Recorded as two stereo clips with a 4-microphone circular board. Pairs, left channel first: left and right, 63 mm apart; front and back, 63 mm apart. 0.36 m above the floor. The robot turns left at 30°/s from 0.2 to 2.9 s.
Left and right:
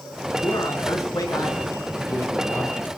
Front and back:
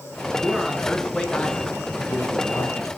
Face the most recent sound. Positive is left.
turn(degrees=30)